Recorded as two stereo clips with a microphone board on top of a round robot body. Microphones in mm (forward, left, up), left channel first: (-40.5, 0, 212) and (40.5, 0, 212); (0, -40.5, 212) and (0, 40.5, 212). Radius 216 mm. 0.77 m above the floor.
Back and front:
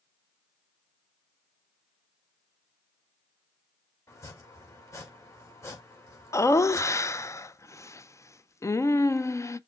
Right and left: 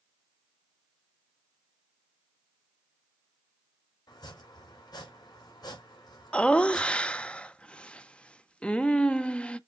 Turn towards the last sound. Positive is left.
turn(degrees=-160)